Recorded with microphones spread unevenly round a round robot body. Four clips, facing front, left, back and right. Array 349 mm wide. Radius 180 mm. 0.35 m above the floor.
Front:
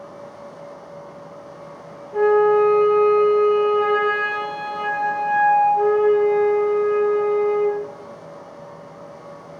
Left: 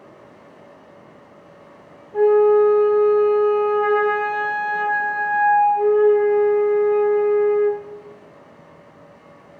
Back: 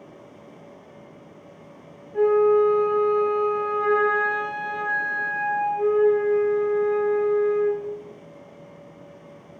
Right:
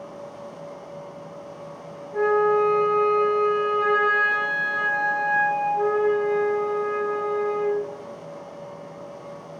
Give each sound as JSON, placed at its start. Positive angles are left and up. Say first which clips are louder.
{"t": 2.1, "sound": "a flute", "louder": "left 6 dB, front 2 dB", "azimuth_deg": -10, "distance_m": 8.5}